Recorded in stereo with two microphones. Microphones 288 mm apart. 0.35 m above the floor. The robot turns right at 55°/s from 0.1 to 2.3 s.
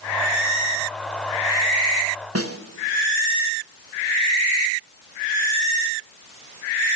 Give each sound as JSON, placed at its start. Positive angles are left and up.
{"t": 2.4, "sound": "a snare drum", "side_deg": -55, "distance_m": 0.8}